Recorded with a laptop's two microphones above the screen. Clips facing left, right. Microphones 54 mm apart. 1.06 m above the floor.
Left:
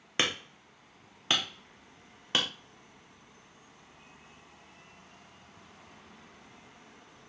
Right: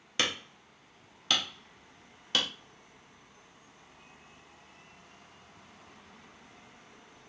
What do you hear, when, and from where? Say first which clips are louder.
0.2 s hammering: left 1 dB; 25° left (ahead or behind), 0.5 m